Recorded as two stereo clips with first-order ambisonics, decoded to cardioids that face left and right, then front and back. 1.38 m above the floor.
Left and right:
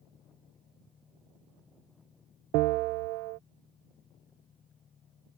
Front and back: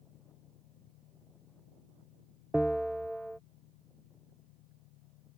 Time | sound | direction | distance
0.0 | an engine running | 25° left | ?
2.5 | a bell | 95° right | ?